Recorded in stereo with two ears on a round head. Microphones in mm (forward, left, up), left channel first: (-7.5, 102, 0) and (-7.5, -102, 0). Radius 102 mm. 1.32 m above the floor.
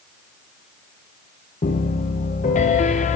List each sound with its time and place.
1.6 s a piano: 30° left (ahead or behind), 0.7 m